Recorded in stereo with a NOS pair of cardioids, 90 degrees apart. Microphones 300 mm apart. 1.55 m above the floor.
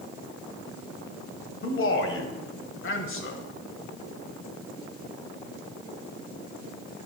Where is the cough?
I don't hear a cough.